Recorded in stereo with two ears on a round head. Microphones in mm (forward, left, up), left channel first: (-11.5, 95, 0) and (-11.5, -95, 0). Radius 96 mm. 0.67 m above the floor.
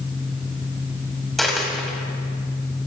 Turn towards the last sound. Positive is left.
turn(degrees=0)  # may be behind; listen again after turning